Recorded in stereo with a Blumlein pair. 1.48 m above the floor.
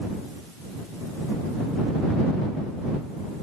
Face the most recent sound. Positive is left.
No sound to turn to.